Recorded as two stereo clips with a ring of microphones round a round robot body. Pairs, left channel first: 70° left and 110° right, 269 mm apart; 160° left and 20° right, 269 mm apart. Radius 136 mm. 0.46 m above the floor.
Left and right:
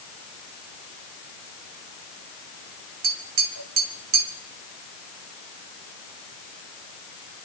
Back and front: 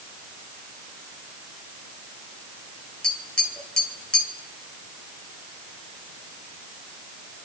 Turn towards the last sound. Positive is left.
turn(degrees=-115)